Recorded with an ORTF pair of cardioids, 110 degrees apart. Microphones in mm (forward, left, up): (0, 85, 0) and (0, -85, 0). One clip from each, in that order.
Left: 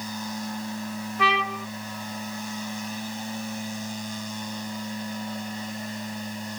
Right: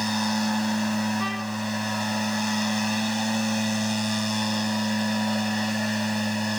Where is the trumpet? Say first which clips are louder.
Left 9 dB; 65° left.